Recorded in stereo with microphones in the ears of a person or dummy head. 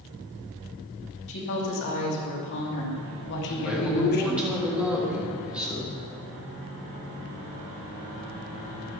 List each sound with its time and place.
1.3 s a woman speaking: 65° left (ahead or behind), 3.5 m; by 4.6 s 50° left (ahead or behind), 1.5 m
3.6 s a man speaking: 5° right (ahead or behind), 3.5 m